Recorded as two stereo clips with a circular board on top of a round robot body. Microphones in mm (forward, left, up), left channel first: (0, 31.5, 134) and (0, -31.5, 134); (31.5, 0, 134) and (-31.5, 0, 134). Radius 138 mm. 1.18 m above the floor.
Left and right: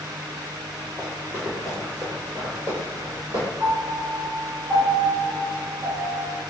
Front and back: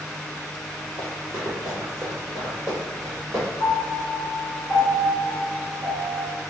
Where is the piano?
50° right, 2.0 m.